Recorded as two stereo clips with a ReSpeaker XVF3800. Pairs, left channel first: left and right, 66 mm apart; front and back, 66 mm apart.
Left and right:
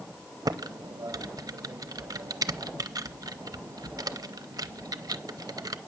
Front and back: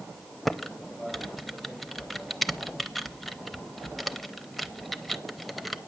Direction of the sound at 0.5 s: 90° right.